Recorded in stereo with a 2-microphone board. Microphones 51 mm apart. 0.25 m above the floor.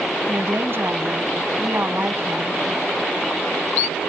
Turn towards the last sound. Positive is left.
turn(degrees=-50)  # may be behind; listen again after turning